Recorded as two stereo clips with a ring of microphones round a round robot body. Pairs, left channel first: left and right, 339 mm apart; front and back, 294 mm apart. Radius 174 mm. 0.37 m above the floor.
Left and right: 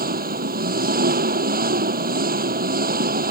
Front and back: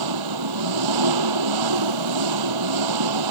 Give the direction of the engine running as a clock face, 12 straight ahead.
5 o'clock.